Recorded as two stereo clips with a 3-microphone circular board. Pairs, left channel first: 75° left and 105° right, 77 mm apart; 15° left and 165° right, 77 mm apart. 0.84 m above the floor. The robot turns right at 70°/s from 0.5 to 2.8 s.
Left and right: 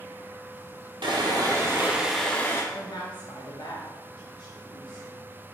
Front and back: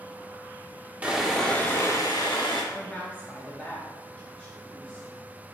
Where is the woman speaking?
80° left, 1.2 m; by 5.3 s 85° left, 1.2 m.